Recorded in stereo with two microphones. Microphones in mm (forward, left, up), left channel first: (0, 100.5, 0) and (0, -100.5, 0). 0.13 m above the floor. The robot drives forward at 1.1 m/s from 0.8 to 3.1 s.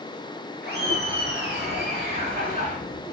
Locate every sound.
0.6 s laughter: 55° right (ahead or behind), 2.5 m; by 2.8 s 40° right (ahead or behind), 3 m